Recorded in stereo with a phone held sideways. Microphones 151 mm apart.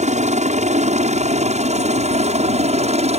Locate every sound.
0.0 s a helicopter: 55° right (ahead or behind); by 3.2 s 50° right (ahead or behind)